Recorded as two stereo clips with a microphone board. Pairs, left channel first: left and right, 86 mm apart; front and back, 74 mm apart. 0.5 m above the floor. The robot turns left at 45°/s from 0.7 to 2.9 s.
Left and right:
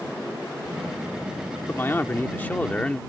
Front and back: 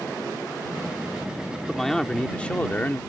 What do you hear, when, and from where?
1.7 s a man speaking: 85° left; by 3.0 s 30° left